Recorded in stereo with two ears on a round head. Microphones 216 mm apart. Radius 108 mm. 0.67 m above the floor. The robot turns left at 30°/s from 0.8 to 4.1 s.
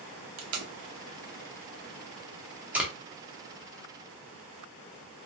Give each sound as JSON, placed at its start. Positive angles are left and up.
{"t": 0.4, "sound": "tape being pulled", "side_deg": -60, "distance_m": 0.7}